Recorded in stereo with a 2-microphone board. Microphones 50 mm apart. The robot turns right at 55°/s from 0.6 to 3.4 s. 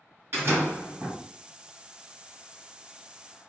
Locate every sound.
0.3 s a door slam: 95° right, 1.8 m; by 1.2 s 60° right, 1.8 m